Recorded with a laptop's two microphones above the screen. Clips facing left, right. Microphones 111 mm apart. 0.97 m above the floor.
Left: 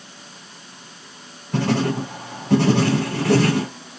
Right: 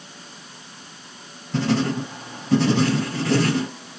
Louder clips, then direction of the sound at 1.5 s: Left 1 dB; 75° left (ahead or behind).